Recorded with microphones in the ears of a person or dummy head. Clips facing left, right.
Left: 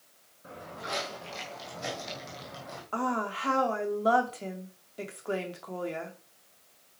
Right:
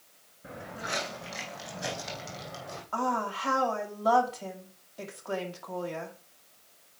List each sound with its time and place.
0.4 s footsteps: 15° right (ahead or behind), 3.5 m; by 2.8 s 5° left (ahead or behind), 3 m
2.9 s a woman speaking: 35° left (ahead or behind), 2.5 m